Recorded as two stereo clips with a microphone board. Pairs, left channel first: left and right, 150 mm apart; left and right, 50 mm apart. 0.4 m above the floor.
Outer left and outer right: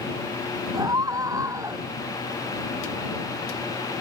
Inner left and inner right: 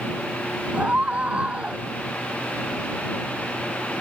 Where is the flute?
No flute in this recording.